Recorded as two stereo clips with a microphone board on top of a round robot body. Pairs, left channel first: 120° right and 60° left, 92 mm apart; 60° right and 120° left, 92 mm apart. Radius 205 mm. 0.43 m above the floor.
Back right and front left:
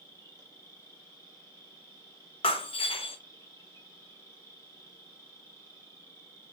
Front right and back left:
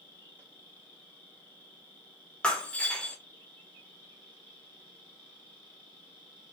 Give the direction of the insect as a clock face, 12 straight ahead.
4 o'clock.